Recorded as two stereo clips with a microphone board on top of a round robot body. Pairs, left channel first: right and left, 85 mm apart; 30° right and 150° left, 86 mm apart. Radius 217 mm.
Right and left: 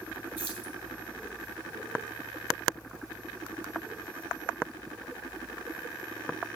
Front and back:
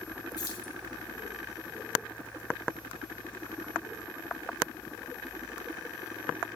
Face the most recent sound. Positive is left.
turn(degrees=20)